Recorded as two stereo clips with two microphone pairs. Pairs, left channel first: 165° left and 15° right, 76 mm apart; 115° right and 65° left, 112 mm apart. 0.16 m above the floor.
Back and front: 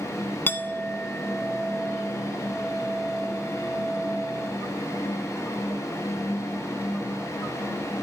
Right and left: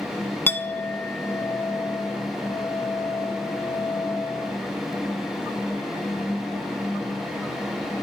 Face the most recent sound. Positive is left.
turn(degrees=-165)